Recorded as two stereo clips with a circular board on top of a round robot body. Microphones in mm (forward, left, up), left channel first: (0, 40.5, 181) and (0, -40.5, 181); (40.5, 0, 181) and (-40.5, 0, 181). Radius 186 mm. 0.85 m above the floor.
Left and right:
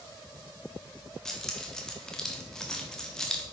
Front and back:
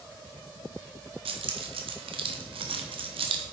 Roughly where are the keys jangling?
Behind.